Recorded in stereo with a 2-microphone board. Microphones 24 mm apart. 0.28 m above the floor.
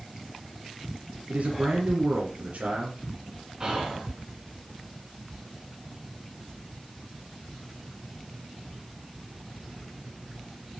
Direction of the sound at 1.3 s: 60° right (ahead or behind).